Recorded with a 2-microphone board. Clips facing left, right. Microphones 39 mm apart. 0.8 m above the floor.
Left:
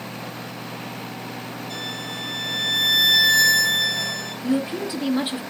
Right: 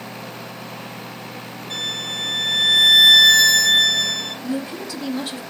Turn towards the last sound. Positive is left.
turn(degrees=25)  # may be behind; listen again after turning